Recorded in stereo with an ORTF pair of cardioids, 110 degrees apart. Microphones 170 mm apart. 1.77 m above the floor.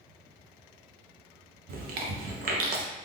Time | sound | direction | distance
1.7 | chewing | 60° right | 0.6 m